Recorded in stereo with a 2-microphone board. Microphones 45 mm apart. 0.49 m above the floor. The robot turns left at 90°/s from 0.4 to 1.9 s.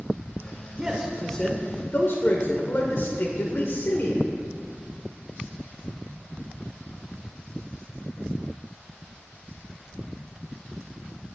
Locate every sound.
0.8 s a man speaking: 150° right, 1.3 m; by 4.3 s 110° left, 1.3 m